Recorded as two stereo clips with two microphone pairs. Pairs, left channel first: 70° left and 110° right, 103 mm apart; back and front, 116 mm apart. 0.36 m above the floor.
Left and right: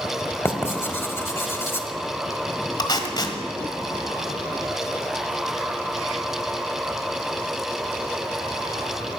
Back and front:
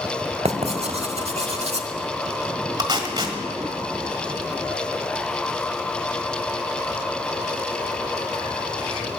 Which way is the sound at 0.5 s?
5° left.